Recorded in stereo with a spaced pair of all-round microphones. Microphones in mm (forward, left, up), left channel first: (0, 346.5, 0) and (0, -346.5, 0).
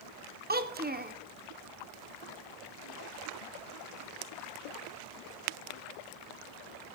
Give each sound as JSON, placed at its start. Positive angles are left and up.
{"t": 0.5, "sound": "a child speaking", "side_deg": -15, "distance_m": 0.6}